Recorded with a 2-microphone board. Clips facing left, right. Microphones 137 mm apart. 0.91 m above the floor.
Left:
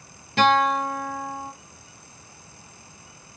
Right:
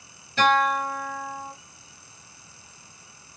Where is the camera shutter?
I don't hear a camera shutter.